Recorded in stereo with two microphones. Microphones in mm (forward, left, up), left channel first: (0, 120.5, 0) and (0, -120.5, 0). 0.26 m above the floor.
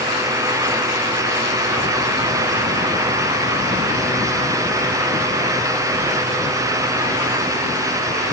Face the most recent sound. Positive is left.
No sound to turn to.